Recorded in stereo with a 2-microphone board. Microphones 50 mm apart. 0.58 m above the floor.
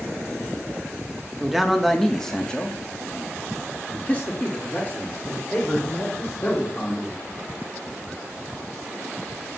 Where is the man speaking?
5° right (ahead or behind), 1.0 m; by 7.2 s 40° left (ahead or behind), 3 m.